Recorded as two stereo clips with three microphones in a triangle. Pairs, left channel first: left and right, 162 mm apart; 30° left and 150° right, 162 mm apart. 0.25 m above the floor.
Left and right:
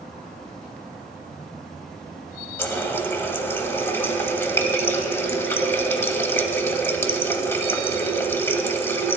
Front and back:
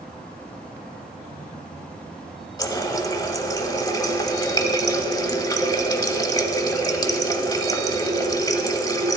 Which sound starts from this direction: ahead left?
A running tap, at 2.6 s.